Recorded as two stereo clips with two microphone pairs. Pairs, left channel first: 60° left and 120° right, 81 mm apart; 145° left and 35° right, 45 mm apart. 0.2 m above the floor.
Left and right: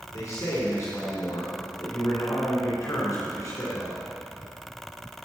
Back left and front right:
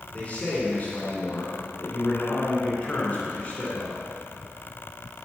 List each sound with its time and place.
0.1 s a man speaking: 100° left, 2.5 m